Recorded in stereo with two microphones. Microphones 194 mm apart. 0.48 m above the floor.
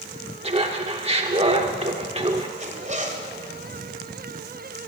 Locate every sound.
0.4 s laughter: 35° right (ahead or behind), 0.8 m
2.6 s a zipper: 40° right (ahead or behind), 2.0 m